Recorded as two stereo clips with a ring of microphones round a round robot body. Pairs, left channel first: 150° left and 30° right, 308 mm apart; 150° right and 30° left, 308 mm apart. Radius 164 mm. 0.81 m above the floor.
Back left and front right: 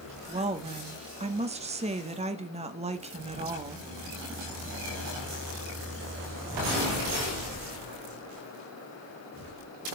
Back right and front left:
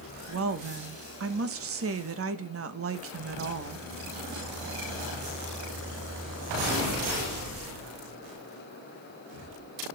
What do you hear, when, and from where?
0.3 s a woman speaking: 30° left, 1.2 m